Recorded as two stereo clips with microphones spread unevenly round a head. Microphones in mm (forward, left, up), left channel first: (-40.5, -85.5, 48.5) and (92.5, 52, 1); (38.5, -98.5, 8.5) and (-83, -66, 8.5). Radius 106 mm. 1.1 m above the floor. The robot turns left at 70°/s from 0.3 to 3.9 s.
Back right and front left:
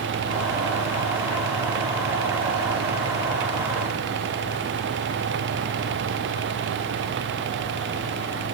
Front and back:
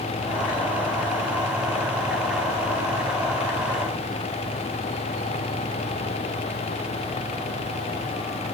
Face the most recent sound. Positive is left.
No sound to turn to.